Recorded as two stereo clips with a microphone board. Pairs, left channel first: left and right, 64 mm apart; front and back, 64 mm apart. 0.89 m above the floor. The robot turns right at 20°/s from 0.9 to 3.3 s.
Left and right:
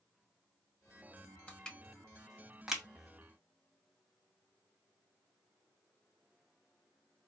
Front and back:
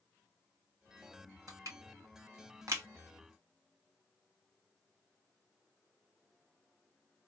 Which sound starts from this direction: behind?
Crushing, at 1.5 s.